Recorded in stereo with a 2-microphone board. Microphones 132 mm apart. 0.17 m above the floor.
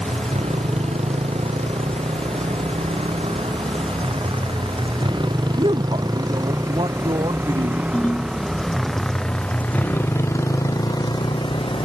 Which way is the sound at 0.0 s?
55° right (ahead or behind).